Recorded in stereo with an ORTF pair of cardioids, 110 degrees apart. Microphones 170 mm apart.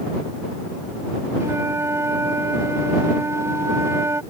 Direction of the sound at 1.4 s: 15° right.